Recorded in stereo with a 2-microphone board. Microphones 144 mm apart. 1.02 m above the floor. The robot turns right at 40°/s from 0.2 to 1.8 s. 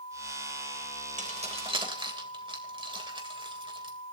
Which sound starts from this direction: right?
Keys jangling, at 1.2 s.